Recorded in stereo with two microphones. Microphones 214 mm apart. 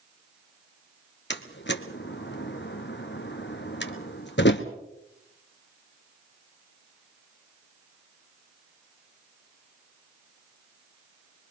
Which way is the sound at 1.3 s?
60° left (ahead or behind).